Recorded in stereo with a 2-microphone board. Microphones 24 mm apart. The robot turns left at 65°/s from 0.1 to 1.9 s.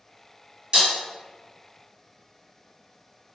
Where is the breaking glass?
40° right (ahead or behind), 1.6 m; by 0.9 s 50° right (ahead or behind), 1.6 m.